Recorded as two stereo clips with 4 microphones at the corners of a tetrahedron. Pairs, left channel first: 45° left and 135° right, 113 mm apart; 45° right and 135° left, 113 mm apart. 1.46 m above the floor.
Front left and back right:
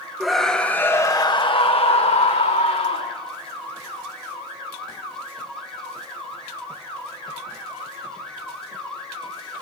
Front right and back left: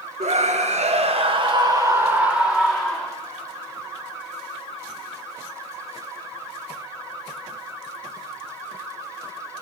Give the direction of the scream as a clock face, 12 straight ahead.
7 o'clock.